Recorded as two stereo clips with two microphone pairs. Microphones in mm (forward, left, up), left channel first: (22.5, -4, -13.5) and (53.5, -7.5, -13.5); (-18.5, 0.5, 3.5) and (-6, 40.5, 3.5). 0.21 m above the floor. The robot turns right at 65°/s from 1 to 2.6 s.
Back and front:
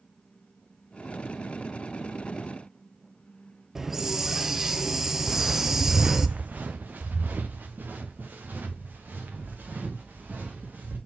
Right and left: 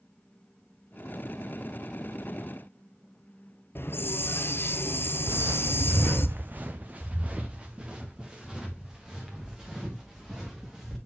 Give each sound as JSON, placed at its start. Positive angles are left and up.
{"t": 3.8, "sound": "a hiss", "azimuth_deg": -75, "distance_m": 0.6}
{"t": 5.3, "sound": "footsteps", "azimuth_deg": 100, "distance_m": 0.6}